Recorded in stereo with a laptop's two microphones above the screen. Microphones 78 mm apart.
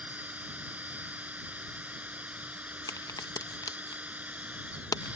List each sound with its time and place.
0.0 s a machine running: 20° right (ahead or behind)
2.9 s a crack: 55° left (ahead or behind)